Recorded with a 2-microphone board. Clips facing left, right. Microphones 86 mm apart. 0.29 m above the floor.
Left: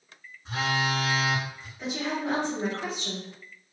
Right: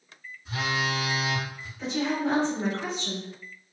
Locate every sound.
0.5 s a phone buzzing: 65° left (ahead or behind), 0.9 m
1.8 s a woman speaking: 15° left (ahead or behind), 1.6 m